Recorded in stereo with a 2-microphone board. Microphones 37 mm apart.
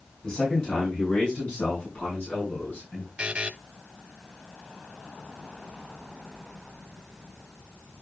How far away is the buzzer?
About 0.9 m.